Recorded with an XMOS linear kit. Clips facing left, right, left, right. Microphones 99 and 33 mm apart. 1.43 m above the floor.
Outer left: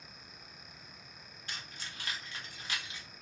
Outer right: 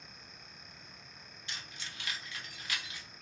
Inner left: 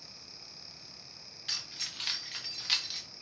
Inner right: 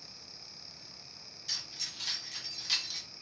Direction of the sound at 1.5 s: 45° left (ahead or behind).